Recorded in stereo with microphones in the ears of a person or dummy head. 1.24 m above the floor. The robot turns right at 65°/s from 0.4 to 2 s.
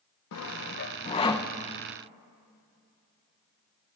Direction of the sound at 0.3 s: 75° left (ahead or behind).